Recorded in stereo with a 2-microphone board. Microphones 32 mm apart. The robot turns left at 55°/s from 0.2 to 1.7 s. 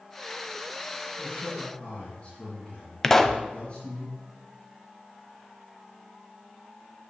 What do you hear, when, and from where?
1.2 s a man speaking: 65° left (ahead or behind), 3.5 m; by 4.0 s 45° left (ahead or behind), 3.5 m
3.0 s a pop: 10° left (ahead or behind), 0.7 m